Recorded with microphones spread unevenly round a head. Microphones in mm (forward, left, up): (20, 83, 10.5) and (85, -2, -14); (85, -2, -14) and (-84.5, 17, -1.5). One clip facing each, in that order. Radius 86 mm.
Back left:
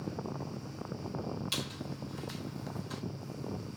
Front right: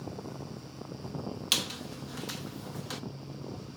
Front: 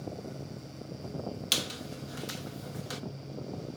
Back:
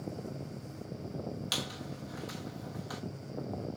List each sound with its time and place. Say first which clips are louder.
1.5 s a squeak: front right 1 dB, front 2 dB; 65° right, 1.1 m